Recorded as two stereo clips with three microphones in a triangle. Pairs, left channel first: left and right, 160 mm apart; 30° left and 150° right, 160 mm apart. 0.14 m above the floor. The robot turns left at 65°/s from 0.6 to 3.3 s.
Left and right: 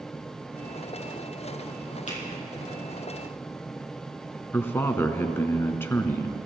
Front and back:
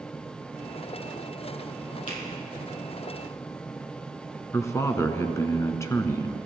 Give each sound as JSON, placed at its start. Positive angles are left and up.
{"t": 2.1, "sound": "a finger snap", "azimuth_deg": 55, "distance_m": 4.5}
{"t": 4.5, "sound": "a man speaking", "azimuth_deg": 50, "distance_m": 1.1}